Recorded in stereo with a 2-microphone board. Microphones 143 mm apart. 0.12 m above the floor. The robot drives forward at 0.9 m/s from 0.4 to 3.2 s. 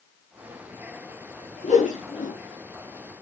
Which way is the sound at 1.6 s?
65° left (ahead or behind).